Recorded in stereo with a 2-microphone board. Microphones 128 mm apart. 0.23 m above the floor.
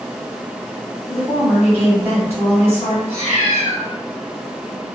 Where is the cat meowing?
55° right (ahead or behind), 1.4 m.